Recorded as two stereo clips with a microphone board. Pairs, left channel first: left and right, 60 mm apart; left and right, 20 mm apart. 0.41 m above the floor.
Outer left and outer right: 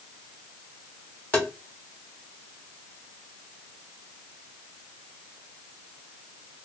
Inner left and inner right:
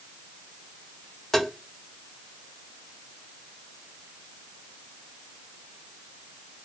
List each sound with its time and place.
1.3 s tapping: 25° left (ahead or behind), 1.1 m